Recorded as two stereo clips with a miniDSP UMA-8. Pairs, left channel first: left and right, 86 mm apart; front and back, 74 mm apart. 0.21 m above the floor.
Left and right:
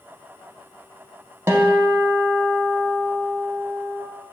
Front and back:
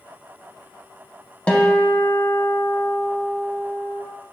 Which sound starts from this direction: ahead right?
A guitar, at 1.5 s.